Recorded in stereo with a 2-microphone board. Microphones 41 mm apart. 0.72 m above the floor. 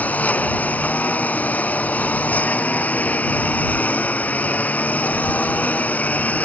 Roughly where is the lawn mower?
Left.